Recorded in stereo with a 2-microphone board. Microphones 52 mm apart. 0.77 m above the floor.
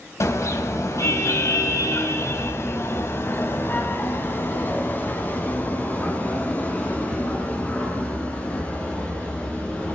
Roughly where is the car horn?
Left.